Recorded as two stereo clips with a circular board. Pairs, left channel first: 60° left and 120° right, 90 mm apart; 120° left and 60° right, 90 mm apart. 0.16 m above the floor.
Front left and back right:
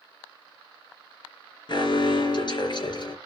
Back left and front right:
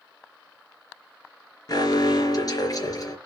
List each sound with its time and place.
1.7 s an alarm: 80° left, 3.5 m